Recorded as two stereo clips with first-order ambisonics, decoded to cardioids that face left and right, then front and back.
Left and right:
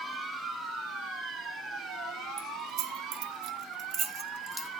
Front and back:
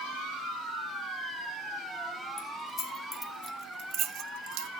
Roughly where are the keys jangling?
Ahead right.